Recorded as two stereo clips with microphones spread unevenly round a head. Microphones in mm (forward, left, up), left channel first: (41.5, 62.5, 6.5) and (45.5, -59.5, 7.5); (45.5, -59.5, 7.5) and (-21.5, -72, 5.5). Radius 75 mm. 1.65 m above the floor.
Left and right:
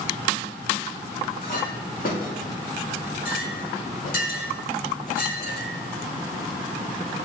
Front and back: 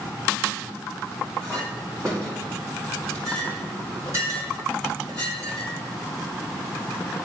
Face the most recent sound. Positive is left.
turn(degrees=120)